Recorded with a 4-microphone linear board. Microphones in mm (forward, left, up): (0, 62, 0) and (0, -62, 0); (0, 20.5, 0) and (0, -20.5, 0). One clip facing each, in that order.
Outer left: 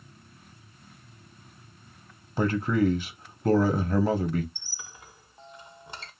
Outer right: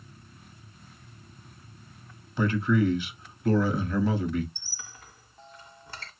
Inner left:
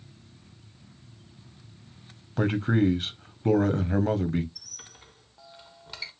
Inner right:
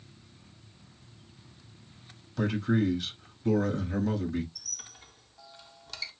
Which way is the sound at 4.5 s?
20° left (ahead or behind).